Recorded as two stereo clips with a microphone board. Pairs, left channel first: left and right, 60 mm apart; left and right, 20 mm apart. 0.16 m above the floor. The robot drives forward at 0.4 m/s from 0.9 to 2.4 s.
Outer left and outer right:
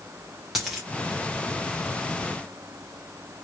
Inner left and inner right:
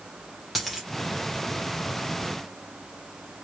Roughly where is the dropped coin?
Centre.